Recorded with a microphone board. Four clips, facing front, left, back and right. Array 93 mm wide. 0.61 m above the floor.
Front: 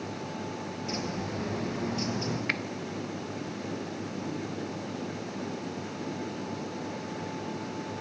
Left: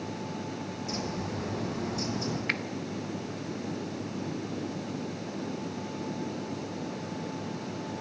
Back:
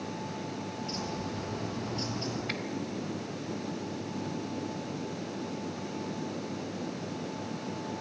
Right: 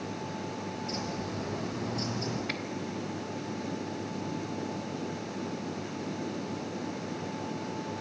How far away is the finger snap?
About 1.3 m.